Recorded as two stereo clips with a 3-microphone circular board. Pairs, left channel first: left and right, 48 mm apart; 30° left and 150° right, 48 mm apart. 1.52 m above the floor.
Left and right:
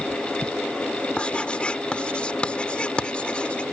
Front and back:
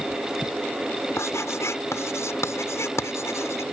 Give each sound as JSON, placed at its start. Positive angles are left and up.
{"t": 1.2, "sound": "writing", "azimuth_deg": 25}